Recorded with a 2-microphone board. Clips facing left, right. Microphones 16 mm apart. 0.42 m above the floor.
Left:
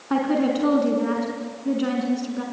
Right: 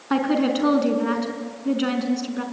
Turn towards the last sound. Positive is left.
turn(degrees=-25)  # may be behind; listen again after turning